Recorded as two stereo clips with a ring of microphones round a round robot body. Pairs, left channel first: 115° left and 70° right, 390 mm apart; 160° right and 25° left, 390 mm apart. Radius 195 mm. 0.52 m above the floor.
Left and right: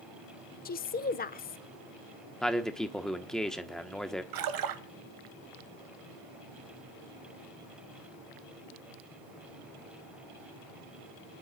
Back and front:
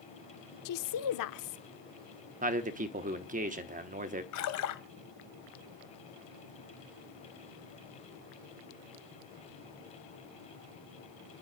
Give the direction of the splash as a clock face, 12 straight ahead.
4 o'clock.